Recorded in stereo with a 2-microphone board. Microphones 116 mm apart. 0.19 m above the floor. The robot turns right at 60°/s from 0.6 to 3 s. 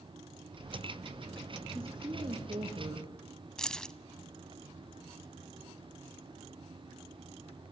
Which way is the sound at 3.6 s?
5° left (ahead or behind).